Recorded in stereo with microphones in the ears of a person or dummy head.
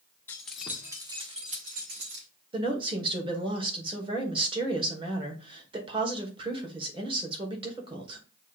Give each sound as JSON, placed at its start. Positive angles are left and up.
{"t": 0.3, "sound": "keys jangling", "side_deg": 5, "distance_m": 0.9}
{"t": 2.5, "sound": "a woman speaking", "side_deg": -20, "distance_m": 1.7}